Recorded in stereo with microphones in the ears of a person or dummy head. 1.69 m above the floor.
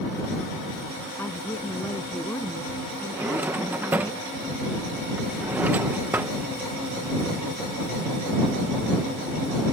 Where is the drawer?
10° right (ahead or behind).